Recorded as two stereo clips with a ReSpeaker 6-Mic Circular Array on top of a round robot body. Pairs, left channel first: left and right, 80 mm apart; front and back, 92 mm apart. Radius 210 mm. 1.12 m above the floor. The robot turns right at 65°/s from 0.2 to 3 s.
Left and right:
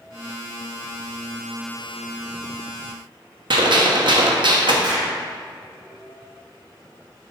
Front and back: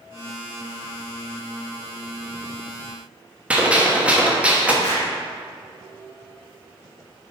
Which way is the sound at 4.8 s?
55° right.